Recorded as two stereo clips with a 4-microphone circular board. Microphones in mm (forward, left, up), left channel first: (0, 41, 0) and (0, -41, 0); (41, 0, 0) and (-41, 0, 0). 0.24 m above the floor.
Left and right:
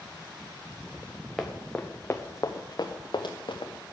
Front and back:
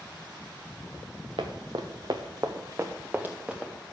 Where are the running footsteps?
Straight behind, 1.4 m; by 3.7 s 100° left, 1.8 m.